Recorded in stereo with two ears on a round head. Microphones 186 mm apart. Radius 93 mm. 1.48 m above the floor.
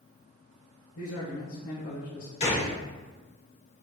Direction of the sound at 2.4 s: 30° left (ahead or behind).